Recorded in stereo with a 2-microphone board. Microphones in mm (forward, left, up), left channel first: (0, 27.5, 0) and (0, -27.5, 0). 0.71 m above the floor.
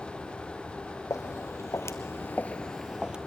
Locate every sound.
1.1 s footsteps: 70° left (ahead or behind), 2 m; by 3.2 s 15° right (ahead or behind), 1.2 m